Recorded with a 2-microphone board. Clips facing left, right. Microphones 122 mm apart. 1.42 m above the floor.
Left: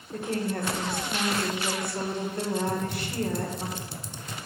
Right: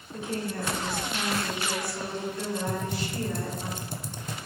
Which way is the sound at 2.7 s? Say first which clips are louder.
Left 1 dB; 50° right (ahead or behind).